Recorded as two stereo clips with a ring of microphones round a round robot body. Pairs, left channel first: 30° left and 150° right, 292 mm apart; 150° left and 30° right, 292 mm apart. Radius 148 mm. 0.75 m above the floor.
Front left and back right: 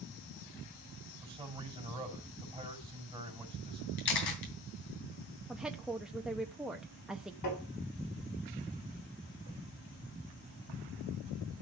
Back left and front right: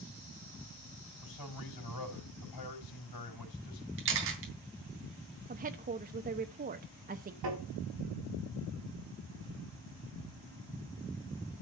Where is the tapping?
5° left, 8 m.